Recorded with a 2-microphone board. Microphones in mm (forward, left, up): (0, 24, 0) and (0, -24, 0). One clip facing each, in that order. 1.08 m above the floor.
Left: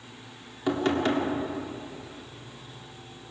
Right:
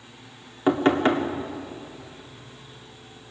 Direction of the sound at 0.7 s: 30° right (ahead or behind).